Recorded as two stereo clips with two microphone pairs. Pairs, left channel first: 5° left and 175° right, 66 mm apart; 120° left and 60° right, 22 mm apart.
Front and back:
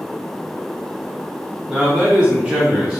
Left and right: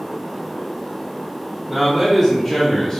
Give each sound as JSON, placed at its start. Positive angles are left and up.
{"t": 1.7, "sound": "a man speaking", "azimuth_deg": -125, "distance_m": 1.2}